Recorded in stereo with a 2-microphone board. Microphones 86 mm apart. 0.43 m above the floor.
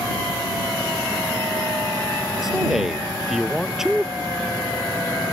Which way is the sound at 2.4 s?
5° right (ahead or behind).